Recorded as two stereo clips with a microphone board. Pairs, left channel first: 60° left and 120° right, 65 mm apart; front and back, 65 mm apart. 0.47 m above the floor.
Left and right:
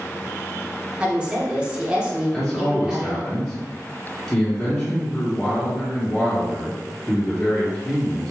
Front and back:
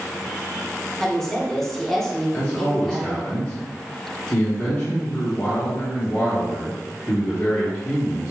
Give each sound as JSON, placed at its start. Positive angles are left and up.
{"t": 1.0, "sound": "a woman speaking", "azimuth_deg": -75, "distance_m": 0.7}
{"t": 2.3, "sound": "a man speaking", "azimuth_deg": -15, "distance_m": 1.0}